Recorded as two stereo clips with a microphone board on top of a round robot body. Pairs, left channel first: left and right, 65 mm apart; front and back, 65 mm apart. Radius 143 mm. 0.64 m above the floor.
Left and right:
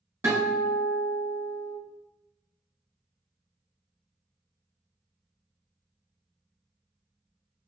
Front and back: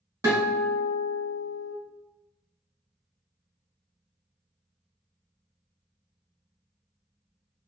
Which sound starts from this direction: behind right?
A guitar, at 0.2 s.